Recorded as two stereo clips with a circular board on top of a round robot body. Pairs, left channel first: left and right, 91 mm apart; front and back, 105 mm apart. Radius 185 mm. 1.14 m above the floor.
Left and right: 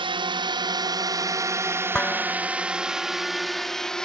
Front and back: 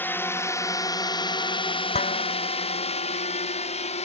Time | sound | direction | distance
0.0 | a drone | 70° right | ?
1.9 | dishes clattering | 10° left | ?